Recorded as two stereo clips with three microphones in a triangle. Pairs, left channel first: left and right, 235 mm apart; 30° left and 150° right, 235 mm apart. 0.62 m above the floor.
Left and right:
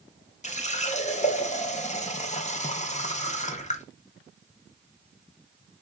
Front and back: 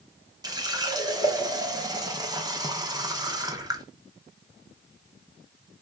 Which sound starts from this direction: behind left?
A running tap, at 0.4 s.